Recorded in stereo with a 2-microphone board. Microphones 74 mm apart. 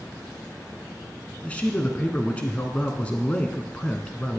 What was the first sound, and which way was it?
A man speaking, 20° left (ahead or behind).